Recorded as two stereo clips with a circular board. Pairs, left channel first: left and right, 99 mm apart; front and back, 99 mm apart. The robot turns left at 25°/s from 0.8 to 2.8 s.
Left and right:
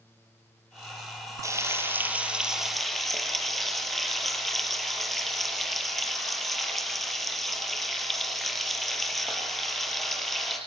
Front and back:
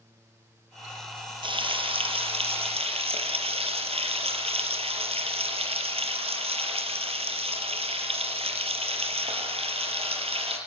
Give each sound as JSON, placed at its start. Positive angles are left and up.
{"t": 1.4, "sound": "frying", "azimuth_deg": -150, "distance_m": 5.5}